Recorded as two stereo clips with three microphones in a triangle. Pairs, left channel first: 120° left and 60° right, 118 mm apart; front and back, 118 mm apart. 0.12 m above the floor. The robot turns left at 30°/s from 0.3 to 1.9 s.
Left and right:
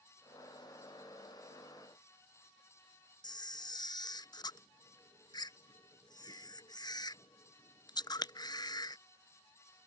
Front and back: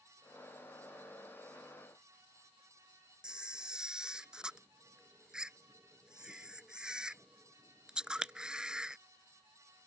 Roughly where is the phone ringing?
No phone ringing in this recording.